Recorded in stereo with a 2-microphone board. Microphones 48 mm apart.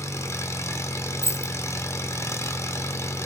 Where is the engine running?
70° left (ahead or behind), 1.0 m.